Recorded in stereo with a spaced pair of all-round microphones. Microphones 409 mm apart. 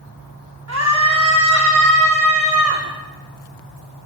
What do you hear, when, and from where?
0.7 s a scream: 40° right (ahead or behind), 4.5 m; by 2.8 s 35° right (ahead or behind), 7 m